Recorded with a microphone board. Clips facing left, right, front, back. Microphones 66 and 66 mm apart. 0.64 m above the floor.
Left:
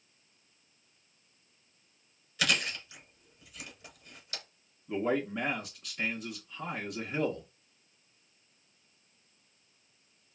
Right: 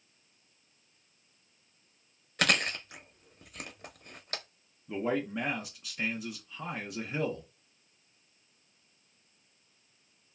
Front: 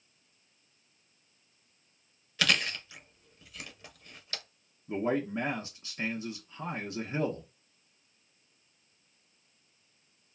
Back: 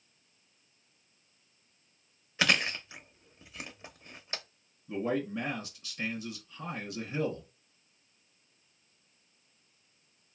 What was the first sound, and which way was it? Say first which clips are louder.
Chewing: right 3 dB, back 1 dB; 115° right.